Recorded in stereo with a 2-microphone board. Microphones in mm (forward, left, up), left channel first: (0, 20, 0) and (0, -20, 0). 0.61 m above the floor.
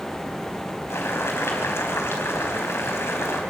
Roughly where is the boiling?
Left.